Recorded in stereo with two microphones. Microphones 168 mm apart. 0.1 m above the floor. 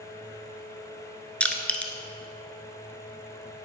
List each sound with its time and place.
1.4 s crushing: 5° left (ahead or behind), 0.9 m